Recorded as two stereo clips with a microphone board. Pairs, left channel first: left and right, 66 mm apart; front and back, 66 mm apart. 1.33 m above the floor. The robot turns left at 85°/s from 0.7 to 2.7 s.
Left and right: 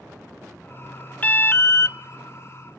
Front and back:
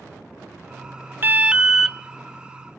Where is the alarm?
140° left, 0.7 m; by 2.0 s 75° left, 0.7 m.